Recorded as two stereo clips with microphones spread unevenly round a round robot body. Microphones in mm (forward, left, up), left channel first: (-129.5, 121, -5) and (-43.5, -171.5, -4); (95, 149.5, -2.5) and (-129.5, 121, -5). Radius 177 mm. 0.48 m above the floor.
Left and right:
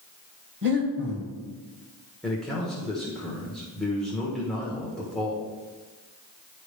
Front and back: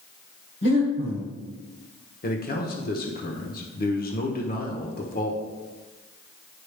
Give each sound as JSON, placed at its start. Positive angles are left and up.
{"t": 0.6, "sound": "breathing", "azimuth_deg": -25, "distance_m": 1.9}
{"t": 2.2, "sound": "a man speaking", "azimuth_deg": 20, "distance_m": 1.1}